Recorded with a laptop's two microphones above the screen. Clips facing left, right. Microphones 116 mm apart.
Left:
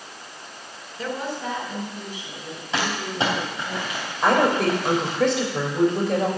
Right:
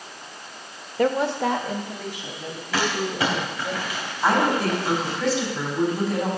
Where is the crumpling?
25° left (ahead or behind), 3 m.